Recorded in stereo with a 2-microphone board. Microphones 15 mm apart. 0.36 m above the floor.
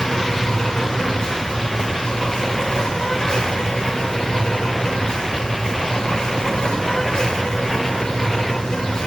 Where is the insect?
65° left (ahead or behind), 6.5 m.